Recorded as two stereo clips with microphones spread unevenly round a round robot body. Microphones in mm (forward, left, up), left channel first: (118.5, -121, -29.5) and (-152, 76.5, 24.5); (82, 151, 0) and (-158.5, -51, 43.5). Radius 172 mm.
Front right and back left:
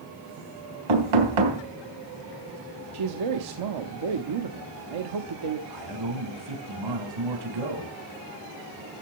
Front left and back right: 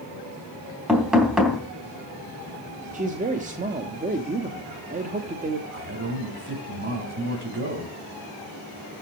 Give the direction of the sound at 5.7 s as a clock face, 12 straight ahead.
7 o'clock.